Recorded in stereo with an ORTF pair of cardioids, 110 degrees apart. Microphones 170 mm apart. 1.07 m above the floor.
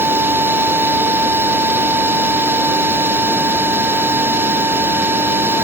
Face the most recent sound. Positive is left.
turn(degrees=-10)